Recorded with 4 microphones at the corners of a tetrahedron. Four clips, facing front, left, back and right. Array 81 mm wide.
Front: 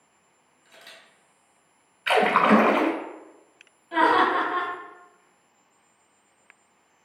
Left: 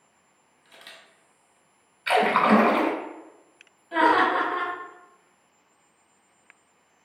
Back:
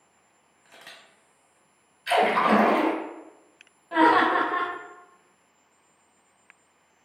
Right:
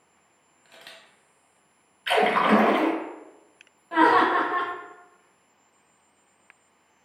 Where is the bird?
No bird in this recording.